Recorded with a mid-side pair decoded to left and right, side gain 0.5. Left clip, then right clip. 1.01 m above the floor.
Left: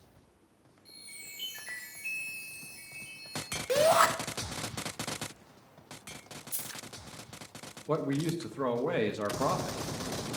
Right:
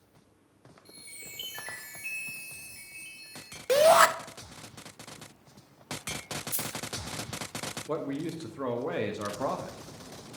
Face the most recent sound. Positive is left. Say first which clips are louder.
# left 4 dB
turn(degrees=15)